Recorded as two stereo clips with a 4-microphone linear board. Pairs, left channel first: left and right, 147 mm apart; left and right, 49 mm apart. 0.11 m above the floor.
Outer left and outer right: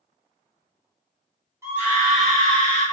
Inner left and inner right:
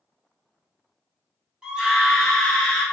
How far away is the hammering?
I don't hear hammering.